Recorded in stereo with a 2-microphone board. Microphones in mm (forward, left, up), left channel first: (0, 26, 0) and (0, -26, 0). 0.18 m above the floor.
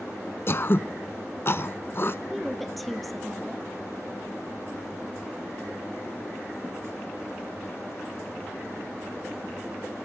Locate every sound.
0.5 s throat clearing: 50° left (ahead or behind), 0.6 m
2.3 s a woman speaking: centre (ahead or behind), 3.5 m